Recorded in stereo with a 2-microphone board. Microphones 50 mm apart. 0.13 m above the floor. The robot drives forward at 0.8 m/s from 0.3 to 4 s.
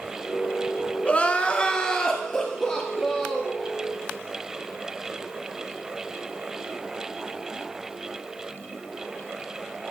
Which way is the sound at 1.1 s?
25° left (ahead or behind).